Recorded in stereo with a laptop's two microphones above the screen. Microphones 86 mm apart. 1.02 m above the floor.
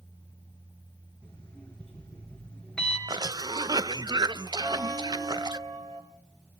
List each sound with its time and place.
1.2 s an alarm clock: 10° left (ahead or behind), 7 m
3.1 s a cough: 55° right (ahead or behind), 0.6 m
4.6 s a bell: 45° right (ahead or behind), 5 m